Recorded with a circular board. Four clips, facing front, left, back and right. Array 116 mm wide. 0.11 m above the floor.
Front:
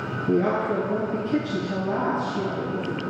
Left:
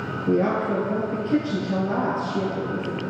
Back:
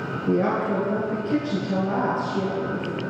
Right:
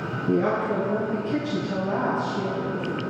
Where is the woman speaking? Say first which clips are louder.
Left 1 dB, even; 135° left, 2.5 m.